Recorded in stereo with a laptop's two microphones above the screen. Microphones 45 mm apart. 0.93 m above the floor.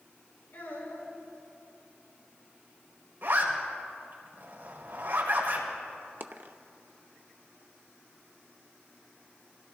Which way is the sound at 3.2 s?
65° right (ahead or behind).